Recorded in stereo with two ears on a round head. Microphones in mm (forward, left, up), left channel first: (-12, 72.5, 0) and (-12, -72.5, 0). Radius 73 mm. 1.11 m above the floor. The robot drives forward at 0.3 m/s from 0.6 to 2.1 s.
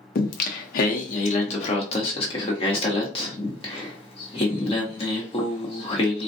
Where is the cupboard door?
I don't hear a cupboard door.